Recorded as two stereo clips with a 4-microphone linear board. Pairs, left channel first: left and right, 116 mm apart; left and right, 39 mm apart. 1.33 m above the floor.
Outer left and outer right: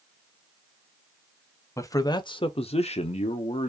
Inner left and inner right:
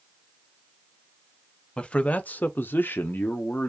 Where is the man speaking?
25° left (ahead or behind), 0.8 m; by 3.7 s 60° left (ahead or behind), 0.9 m.